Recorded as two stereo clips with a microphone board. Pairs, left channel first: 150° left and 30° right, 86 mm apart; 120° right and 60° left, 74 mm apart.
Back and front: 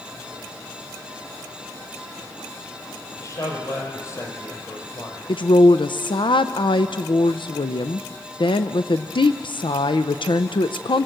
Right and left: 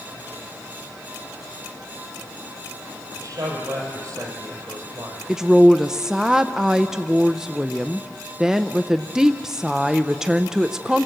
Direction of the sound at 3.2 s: 100° left.